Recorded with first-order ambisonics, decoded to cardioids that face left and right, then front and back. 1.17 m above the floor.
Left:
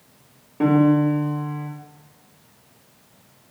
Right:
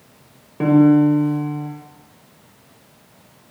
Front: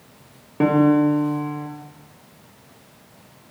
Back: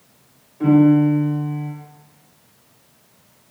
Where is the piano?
15° right, 1.5 m.